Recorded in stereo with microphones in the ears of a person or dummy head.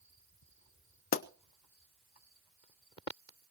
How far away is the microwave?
I don't hear a microwave.